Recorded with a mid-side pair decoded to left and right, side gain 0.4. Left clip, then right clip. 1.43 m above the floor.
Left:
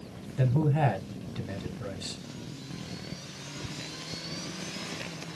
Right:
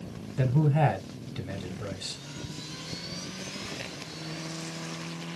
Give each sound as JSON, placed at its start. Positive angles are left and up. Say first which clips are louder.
{"t": 0.4, "sound": "a man speaking", "louder": "right 1 dB", "azimuth_deg": -15, "distance_m": 1.0}